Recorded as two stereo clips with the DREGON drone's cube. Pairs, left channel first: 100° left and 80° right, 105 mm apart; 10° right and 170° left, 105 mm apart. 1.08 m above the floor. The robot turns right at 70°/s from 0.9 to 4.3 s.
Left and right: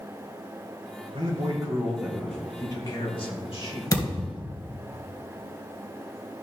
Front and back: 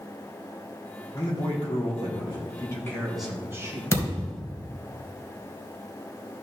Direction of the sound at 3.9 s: 50° left.